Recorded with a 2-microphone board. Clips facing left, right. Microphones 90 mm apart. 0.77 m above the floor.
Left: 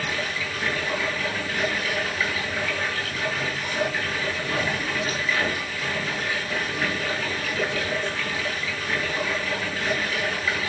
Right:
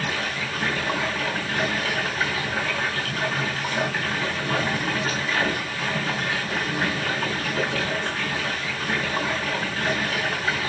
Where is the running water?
40° right (ahead or behind), 4 m.